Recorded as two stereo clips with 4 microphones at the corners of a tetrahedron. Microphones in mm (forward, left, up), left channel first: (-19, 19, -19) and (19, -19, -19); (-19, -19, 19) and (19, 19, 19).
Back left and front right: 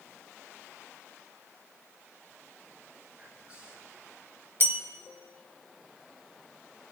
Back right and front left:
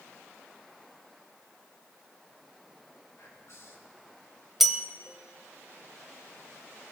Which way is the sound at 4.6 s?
40° right.